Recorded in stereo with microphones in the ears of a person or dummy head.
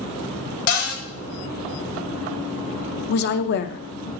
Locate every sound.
0.7 s a cupboard door: 70° left (ahead or behind), 1.7 m
3.1 s a woman speaking: 55° left (ahead or behind), 0.5 m